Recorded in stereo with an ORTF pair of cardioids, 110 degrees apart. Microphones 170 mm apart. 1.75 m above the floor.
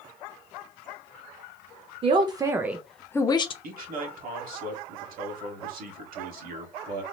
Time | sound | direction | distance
2.0 | a man speaking | 35° right | 0.8 m
3.6 | a man speaking | 55° right | 1.6 m